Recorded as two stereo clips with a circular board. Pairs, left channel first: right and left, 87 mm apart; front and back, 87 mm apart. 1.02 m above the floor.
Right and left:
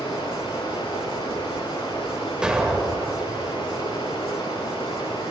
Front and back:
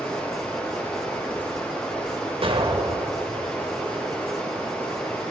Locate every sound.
0.0 s running water: 80° right, 6.5 m
2.4 s an explosion: 170° left, 2.5 m